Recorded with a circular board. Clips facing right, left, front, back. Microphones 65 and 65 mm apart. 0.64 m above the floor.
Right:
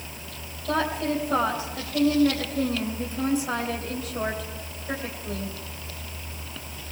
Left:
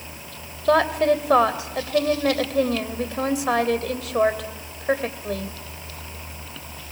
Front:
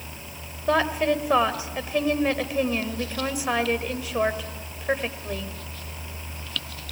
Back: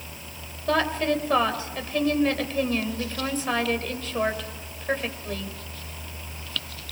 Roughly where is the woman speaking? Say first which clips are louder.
Left 8 dB, front 2 dB; left.